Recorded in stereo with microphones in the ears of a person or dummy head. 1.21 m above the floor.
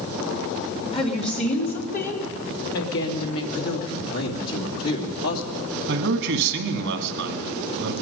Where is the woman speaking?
35° left (ahead or behind), 2.5 m; by 3.4 s 80° left, 2.5 m.